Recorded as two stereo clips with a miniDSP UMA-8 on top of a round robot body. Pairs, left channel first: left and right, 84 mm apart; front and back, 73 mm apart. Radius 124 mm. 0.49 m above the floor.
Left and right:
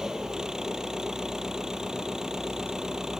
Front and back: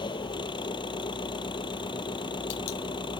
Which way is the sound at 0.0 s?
5° right.